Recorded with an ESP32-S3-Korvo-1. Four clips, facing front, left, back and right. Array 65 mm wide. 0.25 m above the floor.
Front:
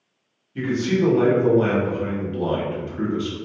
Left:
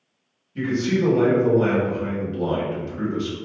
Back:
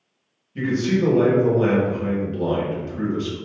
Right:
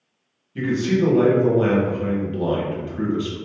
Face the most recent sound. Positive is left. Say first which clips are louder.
# right 2 dB, even
turn(degrees=-60)